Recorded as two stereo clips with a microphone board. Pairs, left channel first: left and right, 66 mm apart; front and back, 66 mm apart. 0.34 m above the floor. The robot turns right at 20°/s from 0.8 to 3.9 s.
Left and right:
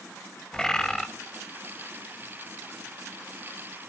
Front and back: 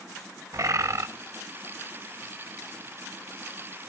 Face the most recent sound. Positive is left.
turn(degrees=-130)